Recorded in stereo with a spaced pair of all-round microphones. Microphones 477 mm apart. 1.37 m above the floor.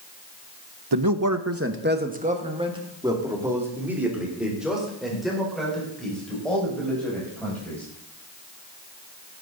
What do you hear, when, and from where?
0.9 s a man speaking: 55° right (ahead or behind), 0.7 m; by 7.8 s 5° left (ahead or behind), 6.5 m